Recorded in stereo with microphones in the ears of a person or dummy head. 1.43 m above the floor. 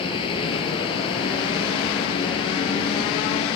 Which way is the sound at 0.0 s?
30° left (ahead or behind).